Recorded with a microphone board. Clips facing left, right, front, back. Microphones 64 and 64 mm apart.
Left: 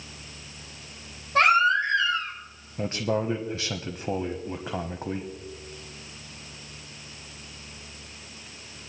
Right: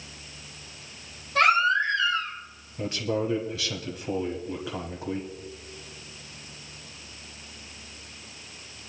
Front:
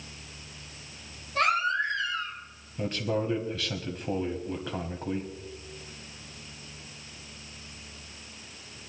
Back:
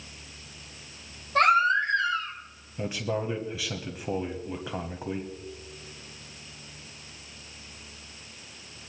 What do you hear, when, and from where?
1.4 s a baby crying: 145° left, 5.5 m
2.8 s a man speaking: 105° left, 1.1 m